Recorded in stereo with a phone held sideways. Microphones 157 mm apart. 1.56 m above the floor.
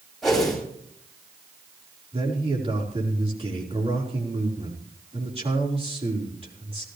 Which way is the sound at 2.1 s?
40° right (ahead or behind).